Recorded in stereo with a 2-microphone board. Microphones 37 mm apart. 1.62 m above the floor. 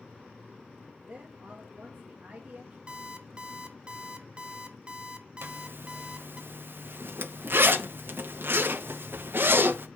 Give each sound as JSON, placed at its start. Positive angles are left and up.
{"t": 1.0, "sound": "a woman speaking", "side_deg": -40, "distance_m": 1.8}
{"t": 2.9, "sound": "an alarm clock", "side_deg": -30, "distance_m": 0.8}
{"t": 5.4, "sound": "a zipper", "side_deg": -65, "distance_m": 0.7}